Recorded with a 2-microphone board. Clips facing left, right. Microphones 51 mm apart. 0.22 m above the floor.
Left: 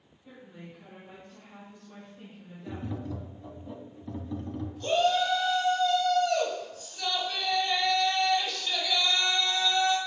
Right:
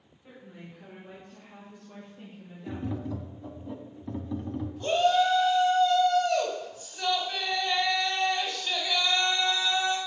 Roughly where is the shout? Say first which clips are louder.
Right 2 dB; centre.